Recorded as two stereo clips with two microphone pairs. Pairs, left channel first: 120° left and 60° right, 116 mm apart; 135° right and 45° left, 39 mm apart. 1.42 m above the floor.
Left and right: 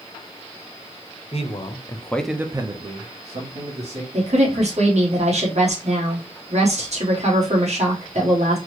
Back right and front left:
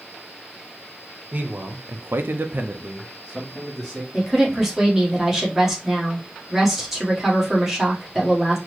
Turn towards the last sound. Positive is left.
turn(degrees=-35)